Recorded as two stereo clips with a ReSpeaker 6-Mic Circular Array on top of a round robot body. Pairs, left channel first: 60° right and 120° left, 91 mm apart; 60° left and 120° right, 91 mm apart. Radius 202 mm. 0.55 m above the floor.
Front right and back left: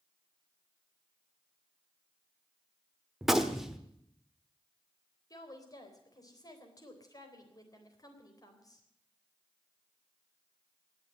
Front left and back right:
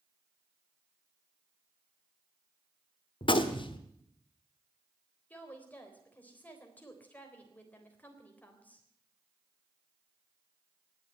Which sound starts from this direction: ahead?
A woman speaking, at 5.3 s.